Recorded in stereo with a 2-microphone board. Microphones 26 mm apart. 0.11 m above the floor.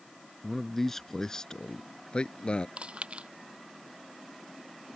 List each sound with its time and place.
0.4 s a man speaking: 5° left (ahead or behind); by 2.7 s 45° left (ahead or behind)
2.8 s chewing: 50° right (ahead or behind)